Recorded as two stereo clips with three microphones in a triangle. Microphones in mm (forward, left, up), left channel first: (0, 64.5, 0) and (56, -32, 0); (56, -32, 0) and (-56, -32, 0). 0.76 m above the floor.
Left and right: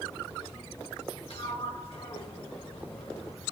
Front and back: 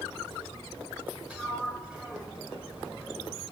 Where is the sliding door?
100° left, 2 m.